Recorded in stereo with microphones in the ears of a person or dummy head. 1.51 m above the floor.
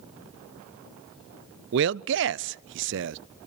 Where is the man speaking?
60° right (ahead or behind), 0.5 m.